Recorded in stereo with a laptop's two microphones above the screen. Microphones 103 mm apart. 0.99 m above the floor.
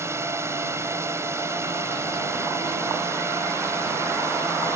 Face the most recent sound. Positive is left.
turn(degrees=-25)  # may be behind; listen again after turning